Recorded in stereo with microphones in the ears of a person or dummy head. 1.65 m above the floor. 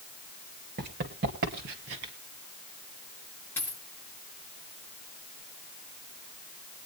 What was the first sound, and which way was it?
Running footsteps, 35° right (ahead or behind).